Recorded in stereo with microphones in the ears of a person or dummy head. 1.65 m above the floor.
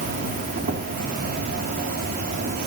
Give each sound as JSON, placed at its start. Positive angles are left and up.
{"t": 0.0, "sound": "an insect", "side_deg": -50, "distance_m": 2.5}